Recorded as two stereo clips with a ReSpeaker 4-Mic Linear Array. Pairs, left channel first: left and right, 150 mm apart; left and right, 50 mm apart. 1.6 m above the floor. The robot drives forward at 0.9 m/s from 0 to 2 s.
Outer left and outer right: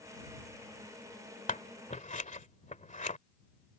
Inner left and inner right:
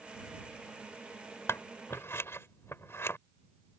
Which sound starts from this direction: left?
Scissors, at 1.5 s.